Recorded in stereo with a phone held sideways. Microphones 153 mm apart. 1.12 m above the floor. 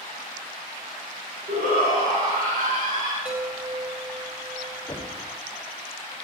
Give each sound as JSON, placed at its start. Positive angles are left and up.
{"t": 1.5, "sound": "a shout", "side_deg": -70, "distance_m": 3.0}
{"t": 3.2, "sound": "a chime", "side_deg": -55, "distance_m": 5.0}
{"t": 4.9, "sound": "knocking", "side_deg": 10, "distance_m": 2.5}